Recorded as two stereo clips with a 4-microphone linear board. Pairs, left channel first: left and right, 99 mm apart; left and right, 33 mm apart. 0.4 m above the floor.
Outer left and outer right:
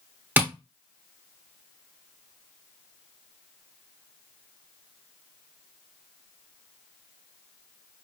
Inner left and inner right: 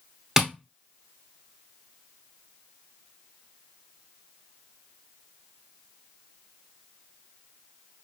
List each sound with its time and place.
0.4 s tapping: 20° right (ahead or behind), 0.8 m